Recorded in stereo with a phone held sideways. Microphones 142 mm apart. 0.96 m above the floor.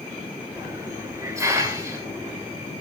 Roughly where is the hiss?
Right.